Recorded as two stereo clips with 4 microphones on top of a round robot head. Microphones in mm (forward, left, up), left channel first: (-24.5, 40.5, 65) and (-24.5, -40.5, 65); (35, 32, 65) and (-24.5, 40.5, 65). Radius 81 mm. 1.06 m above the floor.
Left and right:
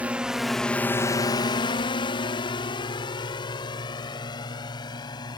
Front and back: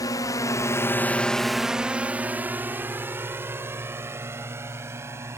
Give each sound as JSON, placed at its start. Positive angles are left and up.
{"t": 0.0, "sound": "a drone", "azimuth_deg": -15}